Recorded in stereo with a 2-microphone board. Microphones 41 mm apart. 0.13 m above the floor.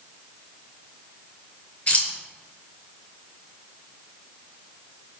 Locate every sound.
1.9 s keys jangling: 35° left (ahead or behind), 1.2 m